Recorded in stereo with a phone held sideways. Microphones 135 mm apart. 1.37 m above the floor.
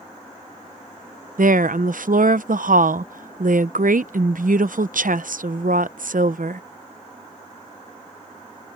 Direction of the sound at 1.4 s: 85° right.